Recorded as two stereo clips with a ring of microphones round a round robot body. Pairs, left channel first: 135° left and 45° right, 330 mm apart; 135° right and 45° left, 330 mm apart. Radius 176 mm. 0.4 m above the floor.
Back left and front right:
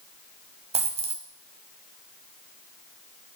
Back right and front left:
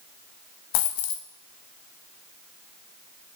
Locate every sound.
0.7 s a dropped coin: 115° right, 1.3 m